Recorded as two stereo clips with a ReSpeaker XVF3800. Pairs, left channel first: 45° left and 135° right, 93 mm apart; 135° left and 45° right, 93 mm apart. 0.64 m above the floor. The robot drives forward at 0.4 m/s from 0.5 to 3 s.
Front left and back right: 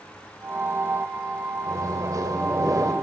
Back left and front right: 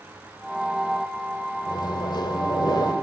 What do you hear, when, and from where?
1.7 s a microwave: 175° left, 1.9 m